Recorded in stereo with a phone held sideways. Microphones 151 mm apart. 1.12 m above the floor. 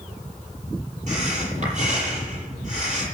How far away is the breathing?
About 7.5 m.